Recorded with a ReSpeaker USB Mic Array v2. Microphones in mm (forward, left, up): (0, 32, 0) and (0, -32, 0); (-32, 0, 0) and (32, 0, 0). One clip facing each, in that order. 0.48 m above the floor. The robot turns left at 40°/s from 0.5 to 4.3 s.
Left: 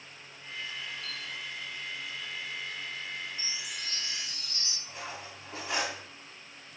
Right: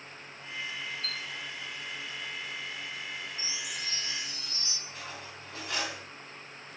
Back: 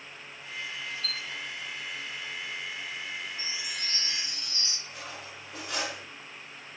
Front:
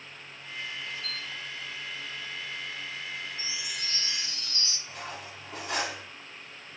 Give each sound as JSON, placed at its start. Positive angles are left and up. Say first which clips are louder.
{"t": 1.0, "sound": "a chime", "louder": "right 2 dB, back 1 dB", "azimuth_deg": -55, "distance_m": 1.9}
{"t": 3.4, "sound": "a chime", "louder": "right 1 dB, even", "azimuth_deg": 145, "distance_m": 0.6}
{"t": 4.9, "sound": "cutlery clinking", "louder": "left 3 dB, front 2 dB", "azimuth_deg": 25, "distance_m": 0.8}